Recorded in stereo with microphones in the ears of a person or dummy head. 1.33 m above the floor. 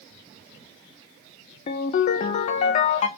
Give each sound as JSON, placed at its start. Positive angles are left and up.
{"t": 1.7, "sound": "a ringtone", "side_deg": 40, "distance_m": 0.6}